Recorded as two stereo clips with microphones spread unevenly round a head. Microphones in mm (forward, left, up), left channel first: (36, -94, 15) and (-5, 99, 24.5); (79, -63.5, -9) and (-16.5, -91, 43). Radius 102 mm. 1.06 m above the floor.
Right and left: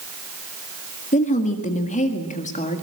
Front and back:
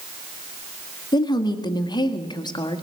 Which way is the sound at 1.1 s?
25° right.